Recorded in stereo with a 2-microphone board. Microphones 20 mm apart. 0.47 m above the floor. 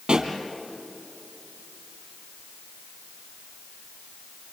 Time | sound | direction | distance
0.1 | a pop | 50° right (ahead or behind) | 2.5 m